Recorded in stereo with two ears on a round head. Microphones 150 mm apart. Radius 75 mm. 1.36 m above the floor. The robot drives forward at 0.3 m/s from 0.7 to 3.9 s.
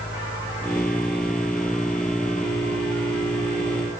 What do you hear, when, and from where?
Only background noise.